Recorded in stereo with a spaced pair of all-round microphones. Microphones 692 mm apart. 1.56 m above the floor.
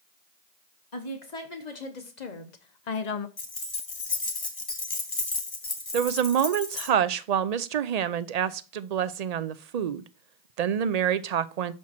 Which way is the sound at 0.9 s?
70° left (ahead or behind).